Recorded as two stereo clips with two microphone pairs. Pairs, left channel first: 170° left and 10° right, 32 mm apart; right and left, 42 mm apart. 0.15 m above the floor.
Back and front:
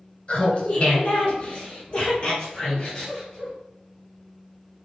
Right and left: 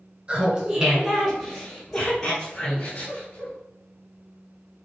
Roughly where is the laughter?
Behind left.